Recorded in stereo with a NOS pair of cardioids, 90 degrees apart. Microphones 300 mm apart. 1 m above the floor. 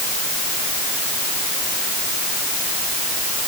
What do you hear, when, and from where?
Only background noise.